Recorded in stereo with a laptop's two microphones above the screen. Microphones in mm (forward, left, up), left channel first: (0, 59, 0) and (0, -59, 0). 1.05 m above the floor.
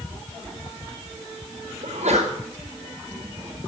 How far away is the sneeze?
About 5 m.